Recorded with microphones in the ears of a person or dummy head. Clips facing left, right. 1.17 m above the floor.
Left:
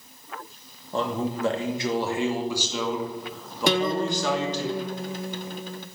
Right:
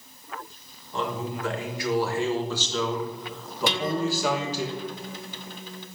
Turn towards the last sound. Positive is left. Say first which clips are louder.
# left 3 dB
turn(degrees=45)  # may be behind; listen again after turning